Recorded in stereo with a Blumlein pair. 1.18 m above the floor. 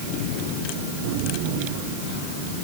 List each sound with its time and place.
Only background noise.